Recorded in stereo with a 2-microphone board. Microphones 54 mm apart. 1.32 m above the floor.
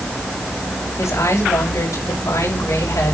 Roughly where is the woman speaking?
Left.